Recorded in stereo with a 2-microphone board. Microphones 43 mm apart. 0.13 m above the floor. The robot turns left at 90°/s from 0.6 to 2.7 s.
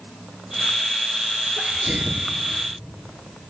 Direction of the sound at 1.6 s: 5° left.